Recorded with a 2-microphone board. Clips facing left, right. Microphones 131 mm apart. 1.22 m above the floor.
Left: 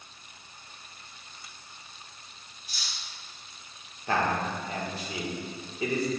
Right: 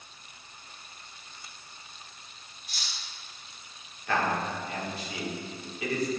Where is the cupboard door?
I don't hear a cupboard door.